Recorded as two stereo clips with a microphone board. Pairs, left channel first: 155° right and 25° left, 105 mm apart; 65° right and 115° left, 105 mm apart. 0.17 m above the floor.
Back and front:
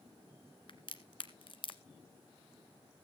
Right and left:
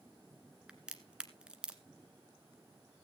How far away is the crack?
About 1.4 m.